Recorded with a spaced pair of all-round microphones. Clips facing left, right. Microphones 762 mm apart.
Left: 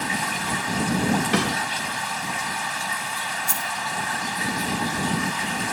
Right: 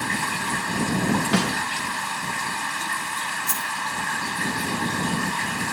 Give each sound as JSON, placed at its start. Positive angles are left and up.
{"t": 0.0, "sound": "running water", "side_deg": 20}
{"t": 1.3, "sound": "a snare drum", "side_deg": -20}
{"t": 3.5, "sound": "a dropped coin", "side_deg": 20}